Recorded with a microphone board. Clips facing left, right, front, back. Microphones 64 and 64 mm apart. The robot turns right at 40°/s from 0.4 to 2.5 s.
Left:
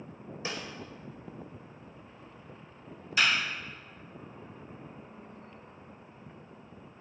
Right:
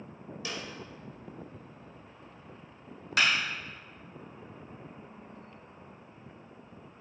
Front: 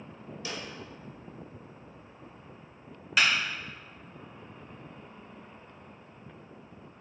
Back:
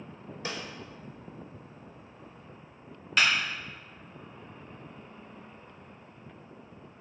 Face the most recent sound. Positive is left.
turn(degrees=-85)